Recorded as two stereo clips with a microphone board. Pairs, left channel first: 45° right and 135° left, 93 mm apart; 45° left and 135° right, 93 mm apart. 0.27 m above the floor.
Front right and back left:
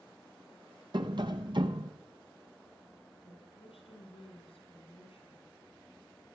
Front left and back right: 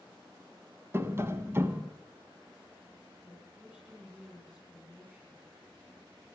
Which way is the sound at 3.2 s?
60° right.